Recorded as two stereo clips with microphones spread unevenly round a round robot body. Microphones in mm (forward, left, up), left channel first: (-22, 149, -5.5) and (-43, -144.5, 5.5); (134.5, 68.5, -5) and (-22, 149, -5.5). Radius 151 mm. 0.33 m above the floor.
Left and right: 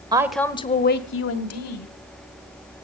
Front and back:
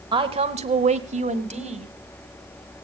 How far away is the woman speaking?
About 1.1 m.